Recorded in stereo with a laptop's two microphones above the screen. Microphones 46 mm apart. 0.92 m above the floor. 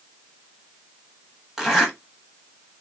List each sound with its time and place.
1.6 s a zipper: 10° right (ahead or behind), 1.1 m